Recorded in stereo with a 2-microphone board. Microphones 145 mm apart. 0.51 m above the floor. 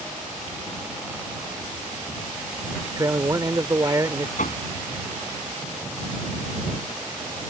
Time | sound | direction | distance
3.0 | a man speaking | 25° right (ahead or behind) | ?
4.4 | knocking | 65° left (ahead or behind) | ?